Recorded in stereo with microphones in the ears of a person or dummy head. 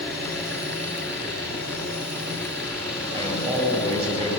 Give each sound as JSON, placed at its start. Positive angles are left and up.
{"t": 0.0, "sound": "an engine running", "side_deg": -5, "distance_m": 7.0}
{"t": 3.1, "sound": "a man speaking", "side_deg": -35, "distance_m": 9.5}